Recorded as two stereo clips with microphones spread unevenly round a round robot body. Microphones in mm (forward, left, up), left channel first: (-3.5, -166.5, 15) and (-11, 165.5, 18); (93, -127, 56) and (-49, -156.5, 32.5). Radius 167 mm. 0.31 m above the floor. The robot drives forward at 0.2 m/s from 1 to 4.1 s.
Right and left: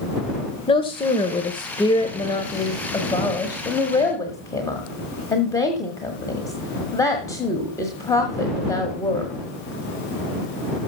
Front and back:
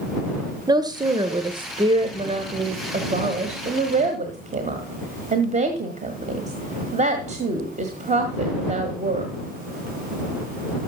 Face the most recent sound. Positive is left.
turn(degrees=-165)